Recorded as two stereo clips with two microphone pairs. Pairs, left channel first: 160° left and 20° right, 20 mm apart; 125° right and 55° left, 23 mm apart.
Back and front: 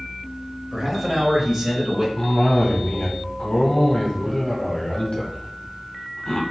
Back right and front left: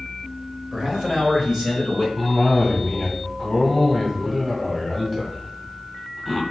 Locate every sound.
0.7 s a man speaking: 45° left, 1.2 m; by 2.1 s 5° left, 1.7 m
2.2 s a cough: 135° left, 1.7 m